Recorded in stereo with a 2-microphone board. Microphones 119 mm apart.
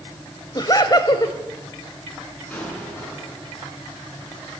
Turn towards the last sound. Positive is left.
turn(degrees=15)  # may be behind; listen again after turning